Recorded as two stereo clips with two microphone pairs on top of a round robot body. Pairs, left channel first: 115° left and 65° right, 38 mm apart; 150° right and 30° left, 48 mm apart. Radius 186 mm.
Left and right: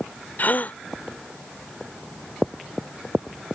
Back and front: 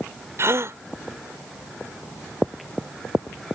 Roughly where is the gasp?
Ahead left.